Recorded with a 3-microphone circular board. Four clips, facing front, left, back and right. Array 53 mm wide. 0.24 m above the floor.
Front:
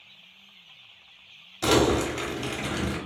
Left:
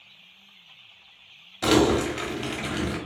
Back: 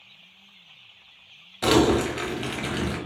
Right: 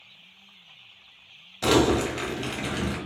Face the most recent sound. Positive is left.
turn(degrees=160)